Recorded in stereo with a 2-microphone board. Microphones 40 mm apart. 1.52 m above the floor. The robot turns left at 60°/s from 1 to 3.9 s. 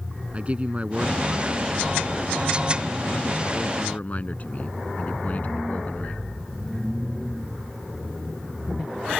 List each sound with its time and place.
0.3 s a man speaking: 145° right; by 6.2 s 40° left